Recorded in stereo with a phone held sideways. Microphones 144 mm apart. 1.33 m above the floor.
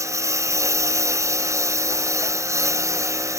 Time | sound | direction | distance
0.0 | a lawn mower | 20° right (ahead or behind) | ?